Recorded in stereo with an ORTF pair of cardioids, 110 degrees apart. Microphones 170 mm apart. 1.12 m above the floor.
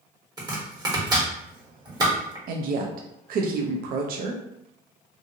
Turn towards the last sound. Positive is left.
turn(degrees=-60)